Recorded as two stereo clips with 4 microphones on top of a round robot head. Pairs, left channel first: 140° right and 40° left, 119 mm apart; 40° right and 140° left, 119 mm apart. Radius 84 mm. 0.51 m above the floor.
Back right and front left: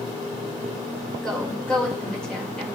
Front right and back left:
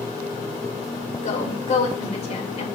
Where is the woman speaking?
60° right, 2.5 m.